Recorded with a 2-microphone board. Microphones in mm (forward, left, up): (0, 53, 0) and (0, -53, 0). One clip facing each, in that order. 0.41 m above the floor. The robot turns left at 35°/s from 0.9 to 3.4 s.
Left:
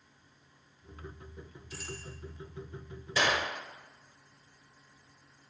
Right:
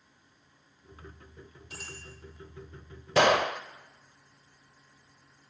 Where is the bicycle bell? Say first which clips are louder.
Left 3 dB; 70° right (ahead or behind), 8.5 m; by 2.0 s 60° right (ahead or behind), 8.5 m.